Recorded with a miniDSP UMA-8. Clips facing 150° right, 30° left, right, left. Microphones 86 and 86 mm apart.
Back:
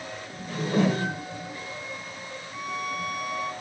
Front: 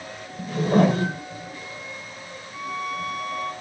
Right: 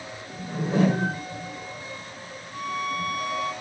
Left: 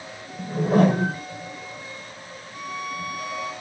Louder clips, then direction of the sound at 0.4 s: Front 5 dB, left 4 dB; 60° left.